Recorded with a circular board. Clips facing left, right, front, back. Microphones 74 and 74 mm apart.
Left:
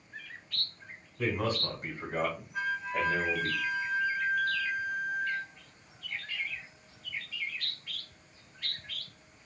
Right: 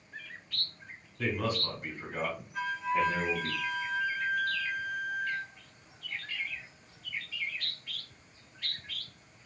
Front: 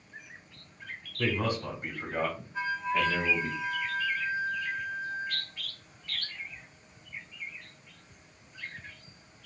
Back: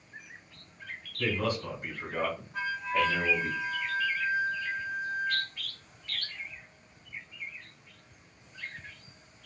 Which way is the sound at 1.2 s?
45° left.